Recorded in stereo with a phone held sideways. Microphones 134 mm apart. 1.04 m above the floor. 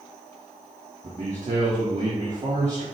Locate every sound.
1.0 s a man speaking: 60° right (ahead or behind), 1.6 m